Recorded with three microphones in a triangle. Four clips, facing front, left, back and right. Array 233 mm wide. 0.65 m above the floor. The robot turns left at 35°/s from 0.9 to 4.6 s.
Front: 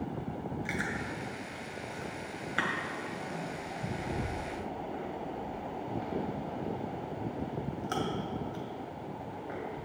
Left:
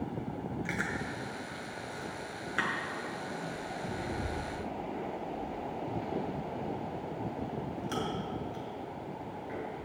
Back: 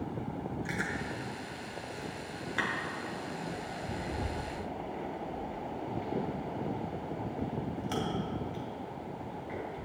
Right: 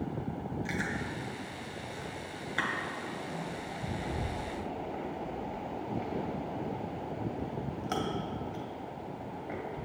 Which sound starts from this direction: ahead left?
Chewing, at 0.7 s.